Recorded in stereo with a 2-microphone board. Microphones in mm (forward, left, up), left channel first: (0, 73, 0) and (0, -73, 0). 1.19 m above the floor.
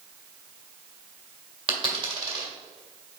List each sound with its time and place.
1.7 s a dropped coin: 40° right (ahead or behind), 1.8 m